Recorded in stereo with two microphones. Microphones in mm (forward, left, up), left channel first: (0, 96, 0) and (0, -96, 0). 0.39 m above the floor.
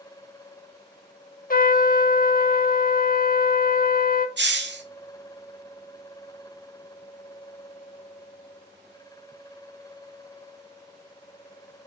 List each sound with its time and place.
1.5 s a trumpet: 50° left (ahead or behind), 0.5 m
4.4 s a hiss: 65° right (ahead or behind), 0.8 m